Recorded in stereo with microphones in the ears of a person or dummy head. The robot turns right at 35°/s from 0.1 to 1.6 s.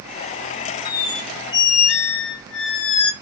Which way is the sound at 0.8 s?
50° left (ahead or behind).